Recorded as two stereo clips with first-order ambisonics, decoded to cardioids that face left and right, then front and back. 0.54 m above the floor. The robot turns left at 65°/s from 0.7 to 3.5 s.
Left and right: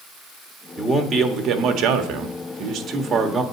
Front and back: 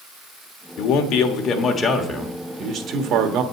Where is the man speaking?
5° right, 1.2 m; by 3.4 s straight behind, 1.2 m.